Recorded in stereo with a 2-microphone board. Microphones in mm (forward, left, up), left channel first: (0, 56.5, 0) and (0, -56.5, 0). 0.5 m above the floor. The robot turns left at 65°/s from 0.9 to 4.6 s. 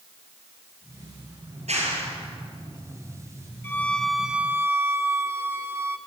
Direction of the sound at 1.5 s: 75° right (ahead or behind).